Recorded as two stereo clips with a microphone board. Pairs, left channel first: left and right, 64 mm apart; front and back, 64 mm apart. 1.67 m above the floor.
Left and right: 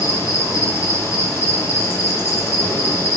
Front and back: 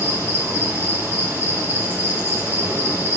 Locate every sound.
0.0 s an insect: 125° left, 2 m